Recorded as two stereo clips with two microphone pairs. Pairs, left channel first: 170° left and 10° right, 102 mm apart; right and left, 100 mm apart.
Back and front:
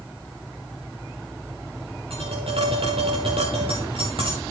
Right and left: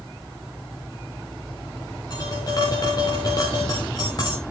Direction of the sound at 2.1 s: 40° right.